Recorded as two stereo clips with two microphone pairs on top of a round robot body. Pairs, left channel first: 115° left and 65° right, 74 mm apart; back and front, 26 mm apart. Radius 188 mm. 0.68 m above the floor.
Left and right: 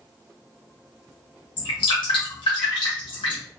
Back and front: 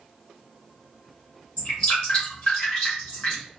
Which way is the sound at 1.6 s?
120° left.